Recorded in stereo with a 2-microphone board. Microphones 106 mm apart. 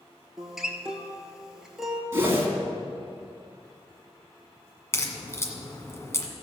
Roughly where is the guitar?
Centre.